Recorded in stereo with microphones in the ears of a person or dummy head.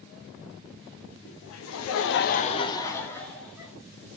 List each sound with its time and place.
1.2 s laughter: 55° left (ahead or behind), 0.8 m; by 3.7 s centre (ahead or behind), 1.3 m